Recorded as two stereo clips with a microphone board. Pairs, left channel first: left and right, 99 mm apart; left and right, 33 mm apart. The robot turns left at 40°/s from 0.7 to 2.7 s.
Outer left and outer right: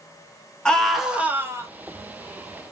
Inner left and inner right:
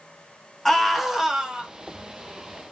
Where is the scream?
10° left, 0.9 m; by 1.7 s 30° right, 0.9 m.